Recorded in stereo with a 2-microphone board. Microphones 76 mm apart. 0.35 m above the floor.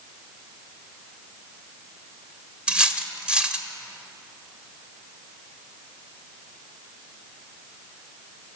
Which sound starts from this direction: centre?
Cutlery clinking, at 2.7 s.